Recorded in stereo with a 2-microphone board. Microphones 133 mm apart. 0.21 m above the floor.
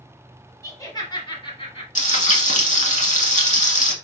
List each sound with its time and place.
0.6 s laughter: 20° left (ahead or behind), 1.2 m; by 1.9 s 45° left (ahead or behind), 1.5 m
1.9 s frying: 70° left (ahead or behind), 0.9 m